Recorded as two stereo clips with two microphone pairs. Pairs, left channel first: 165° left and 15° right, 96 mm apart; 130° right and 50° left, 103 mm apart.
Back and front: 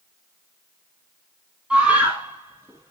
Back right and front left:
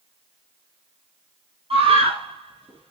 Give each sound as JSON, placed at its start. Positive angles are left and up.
{"t": 1.7, "sound": "a scream", "azimuth_deg": 65, "distance_m": 4.0}